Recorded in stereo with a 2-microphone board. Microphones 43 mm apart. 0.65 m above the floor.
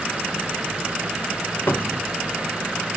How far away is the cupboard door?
About 0.8 m.